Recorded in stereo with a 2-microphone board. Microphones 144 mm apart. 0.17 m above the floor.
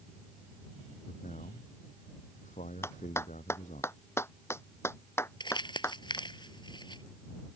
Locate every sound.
1.1 s a man speaking: 60° left (ahead or behind)
2.8 s a clap: 15° left (ahead or behind)
5.4 s crumpling: 30° left (ahead or behind)